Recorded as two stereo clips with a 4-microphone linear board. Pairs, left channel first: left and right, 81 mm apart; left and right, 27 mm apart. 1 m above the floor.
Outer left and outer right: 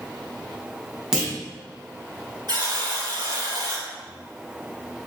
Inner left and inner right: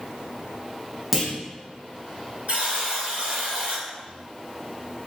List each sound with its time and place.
1.1 s a clunk: 5° right (ahead or behind), 1.3 m
2.5 s a buzzer: 55° right (ahead or behind), 1.7 m